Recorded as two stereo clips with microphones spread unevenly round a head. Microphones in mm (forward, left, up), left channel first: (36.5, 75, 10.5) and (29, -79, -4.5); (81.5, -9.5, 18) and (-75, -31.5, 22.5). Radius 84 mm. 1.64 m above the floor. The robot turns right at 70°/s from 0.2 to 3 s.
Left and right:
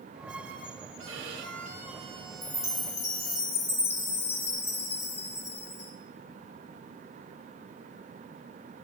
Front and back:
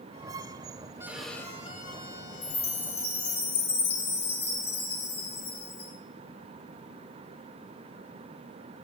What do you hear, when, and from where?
1.0 s a violin: 100° right, 3 m; by 3.4 s 40° left, 3 m
2.4 s a chime: straight ahead, 4.5 m; by 5.9 s 40° left, 4.5 m